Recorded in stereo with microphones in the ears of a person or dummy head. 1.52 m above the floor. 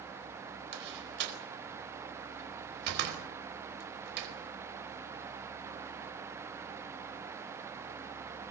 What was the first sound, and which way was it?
A door slam, 65° right (ahead or behind).